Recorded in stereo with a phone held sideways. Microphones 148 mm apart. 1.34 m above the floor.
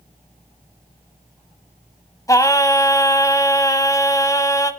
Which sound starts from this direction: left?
Singing, at 2.3 s.